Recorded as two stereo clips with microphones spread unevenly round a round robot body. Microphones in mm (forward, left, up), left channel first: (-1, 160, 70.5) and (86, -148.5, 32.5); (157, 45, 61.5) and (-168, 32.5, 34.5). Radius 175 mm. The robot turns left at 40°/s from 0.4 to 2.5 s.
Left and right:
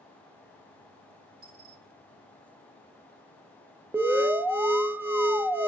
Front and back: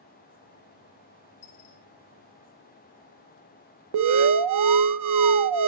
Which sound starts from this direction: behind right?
An alarm, at 3.9 s.